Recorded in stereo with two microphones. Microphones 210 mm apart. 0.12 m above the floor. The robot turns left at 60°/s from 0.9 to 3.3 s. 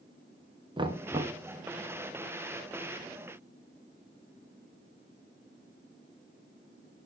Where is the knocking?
25° right (ahead or behind), 1.2 m; by 1.4 s 15° right (ahead or behind), 1.2 m.